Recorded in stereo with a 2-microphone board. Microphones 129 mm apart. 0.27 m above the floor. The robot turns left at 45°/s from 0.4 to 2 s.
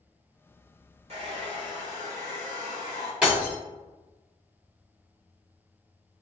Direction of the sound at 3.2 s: 5° right (ahead or behind).